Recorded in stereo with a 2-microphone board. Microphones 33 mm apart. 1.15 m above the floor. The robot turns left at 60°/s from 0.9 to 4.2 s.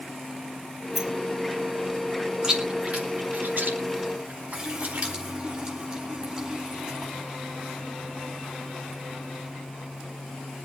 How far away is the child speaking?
I don't hear a child speaking.